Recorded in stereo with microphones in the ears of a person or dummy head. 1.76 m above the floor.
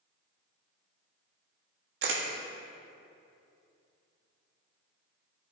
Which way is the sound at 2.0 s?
75° right (ahead or behind).